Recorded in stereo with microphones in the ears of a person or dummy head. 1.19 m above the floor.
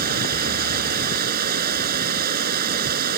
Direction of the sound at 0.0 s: 55° right (ahead or behind).